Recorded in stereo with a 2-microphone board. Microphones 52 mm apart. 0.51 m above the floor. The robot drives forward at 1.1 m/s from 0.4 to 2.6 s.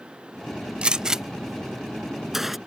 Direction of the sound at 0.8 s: 20° right (ahead or behind).